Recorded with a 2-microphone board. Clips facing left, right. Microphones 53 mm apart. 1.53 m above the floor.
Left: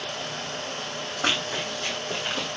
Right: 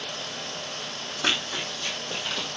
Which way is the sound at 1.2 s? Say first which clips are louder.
Left 1 dB; 35° left (ahead or behind).